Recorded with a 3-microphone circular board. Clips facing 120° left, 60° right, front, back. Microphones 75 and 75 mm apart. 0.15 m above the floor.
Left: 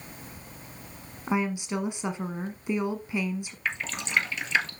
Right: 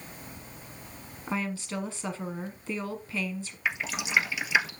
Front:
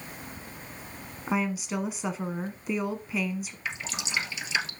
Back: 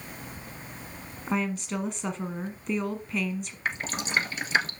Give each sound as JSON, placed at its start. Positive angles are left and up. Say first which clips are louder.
{"t": 1.3, "sound": "a woman speaking", "louder": "left 5 dB, even", "azimuth_deg": 75, "distance_m": 1.1}
{"t": 3.6, "sound": "dripping", "louder": "right 2 dB, back 8 dB", "azimuth_deg": -140, "distance_m": 1.3}